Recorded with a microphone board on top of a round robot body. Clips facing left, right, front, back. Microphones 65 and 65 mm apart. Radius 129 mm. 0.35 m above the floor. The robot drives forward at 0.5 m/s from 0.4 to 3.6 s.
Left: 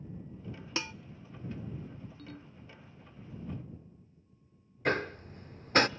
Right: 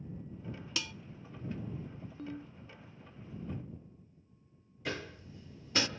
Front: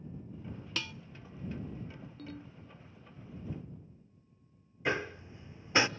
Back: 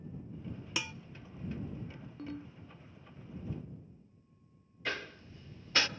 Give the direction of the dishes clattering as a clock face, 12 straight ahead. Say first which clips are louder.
Left 4 dB, back 1 dB; 8 o'clock.